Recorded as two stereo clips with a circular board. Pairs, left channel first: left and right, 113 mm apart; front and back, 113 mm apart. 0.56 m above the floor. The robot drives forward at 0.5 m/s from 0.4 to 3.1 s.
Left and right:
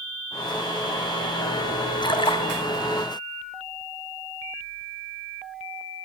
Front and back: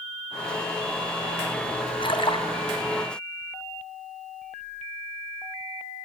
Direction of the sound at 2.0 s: 40° left.